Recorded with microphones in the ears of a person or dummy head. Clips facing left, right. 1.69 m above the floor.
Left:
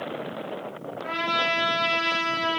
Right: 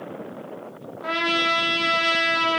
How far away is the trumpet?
About 1.4 m.